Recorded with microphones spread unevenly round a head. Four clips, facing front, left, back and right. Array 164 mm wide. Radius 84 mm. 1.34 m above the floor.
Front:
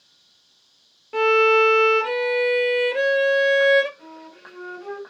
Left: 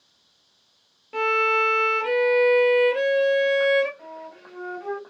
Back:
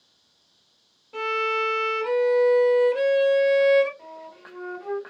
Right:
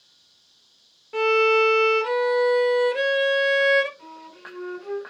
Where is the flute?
95° left, 2 m.